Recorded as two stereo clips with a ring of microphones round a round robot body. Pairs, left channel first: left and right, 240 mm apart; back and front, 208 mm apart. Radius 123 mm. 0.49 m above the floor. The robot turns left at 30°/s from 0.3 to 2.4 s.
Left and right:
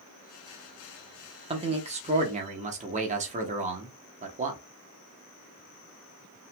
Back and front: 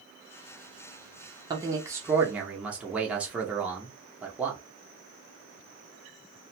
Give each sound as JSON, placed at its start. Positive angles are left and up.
{"t": 1.5, "sound": "a man speaking", "azimuth_deg": -50, "distance_m": 0.7}